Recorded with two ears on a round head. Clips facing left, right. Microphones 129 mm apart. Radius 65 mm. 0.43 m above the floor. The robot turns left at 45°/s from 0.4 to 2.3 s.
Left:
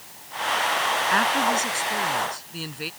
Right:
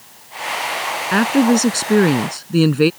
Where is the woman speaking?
45° right; by 2.9 s 100° right.